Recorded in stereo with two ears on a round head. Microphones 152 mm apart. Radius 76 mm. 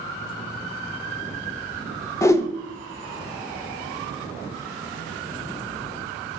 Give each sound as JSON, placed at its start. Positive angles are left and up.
{"t": 2.2, "sound": "a whoosh", "side_deg": 15, "distance_m": 0.6}